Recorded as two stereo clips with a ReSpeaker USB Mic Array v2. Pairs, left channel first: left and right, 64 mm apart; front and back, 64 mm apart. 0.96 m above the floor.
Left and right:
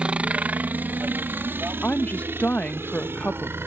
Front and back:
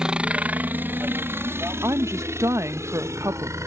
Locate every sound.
0.0 s a helicopter: 130° right; by 3.7 s 140° right
1.8 s a woman speaking: 150° left